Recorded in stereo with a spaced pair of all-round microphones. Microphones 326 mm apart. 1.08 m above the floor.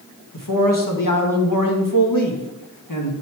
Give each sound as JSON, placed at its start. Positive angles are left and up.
{"t": 0.3, "sound": "a man speaking", "side_deg": 75, "distance_m": 1.4}